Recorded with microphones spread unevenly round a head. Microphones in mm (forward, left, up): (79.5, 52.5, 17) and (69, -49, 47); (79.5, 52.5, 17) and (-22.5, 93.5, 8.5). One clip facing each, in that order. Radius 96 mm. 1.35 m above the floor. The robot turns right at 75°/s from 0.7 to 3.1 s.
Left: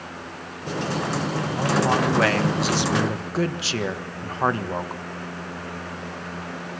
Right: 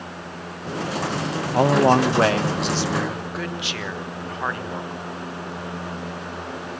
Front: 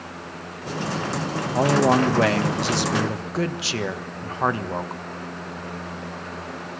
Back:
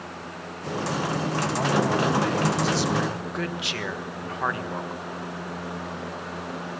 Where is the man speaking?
85° right, 1.4 m; by 5.0 s 35° left, 1.4 m.